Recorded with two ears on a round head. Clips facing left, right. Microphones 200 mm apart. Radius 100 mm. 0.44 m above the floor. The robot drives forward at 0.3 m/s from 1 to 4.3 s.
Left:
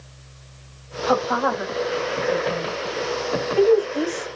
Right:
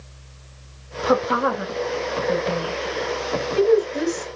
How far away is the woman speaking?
About 2.5 m.